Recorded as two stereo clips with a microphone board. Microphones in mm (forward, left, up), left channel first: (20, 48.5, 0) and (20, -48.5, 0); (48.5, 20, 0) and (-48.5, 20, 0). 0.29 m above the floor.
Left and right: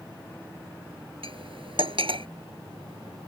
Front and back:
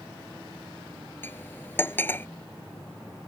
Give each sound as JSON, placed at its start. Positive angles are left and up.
{"t": 1.2, "sound": "cutlery clinking", "azimuth_deg": -70}